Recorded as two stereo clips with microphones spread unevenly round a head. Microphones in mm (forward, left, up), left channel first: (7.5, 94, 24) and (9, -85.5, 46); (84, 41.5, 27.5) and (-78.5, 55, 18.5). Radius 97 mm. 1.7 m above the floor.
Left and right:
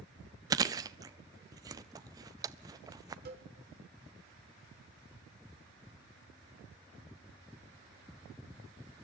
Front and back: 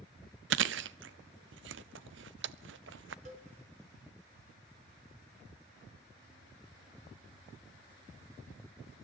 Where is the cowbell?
130° right, 3.5 m.